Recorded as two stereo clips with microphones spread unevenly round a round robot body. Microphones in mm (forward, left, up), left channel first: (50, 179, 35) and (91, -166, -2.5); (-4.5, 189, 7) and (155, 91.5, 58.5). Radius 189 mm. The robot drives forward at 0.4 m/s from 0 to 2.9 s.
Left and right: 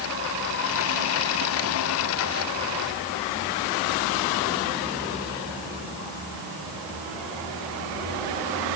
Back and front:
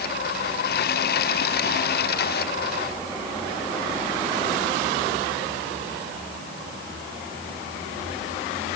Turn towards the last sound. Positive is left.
No sound to turn to.